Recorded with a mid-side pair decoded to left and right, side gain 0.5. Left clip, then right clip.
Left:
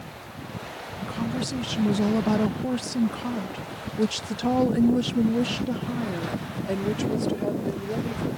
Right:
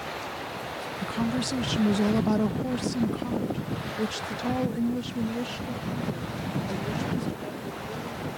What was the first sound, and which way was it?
A woman speaking, 20° right.